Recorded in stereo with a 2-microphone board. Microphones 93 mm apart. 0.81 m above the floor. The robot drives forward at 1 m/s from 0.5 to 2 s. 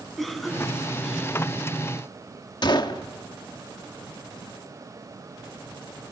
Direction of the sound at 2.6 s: 55° left (ahead or behind).